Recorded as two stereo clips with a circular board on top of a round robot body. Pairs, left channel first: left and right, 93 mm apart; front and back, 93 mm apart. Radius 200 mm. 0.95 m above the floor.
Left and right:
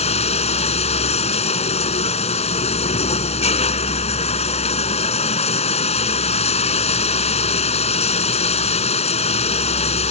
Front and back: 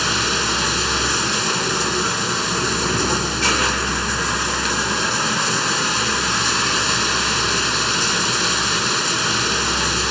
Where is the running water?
90° left.